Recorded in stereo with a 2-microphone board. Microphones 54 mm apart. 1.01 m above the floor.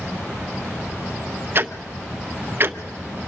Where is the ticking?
40° right (ahead or behind), 0.6 m.